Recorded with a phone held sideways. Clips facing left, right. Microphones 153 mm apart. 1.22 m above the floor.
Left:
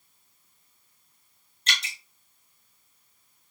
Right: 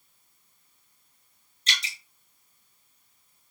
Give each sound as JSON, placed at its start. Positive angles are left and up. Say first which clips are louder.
{"t": 1.7, "sound": "dripping", "louder": "left 2 dB", "side_deg": 50, "distance_m": 1.6}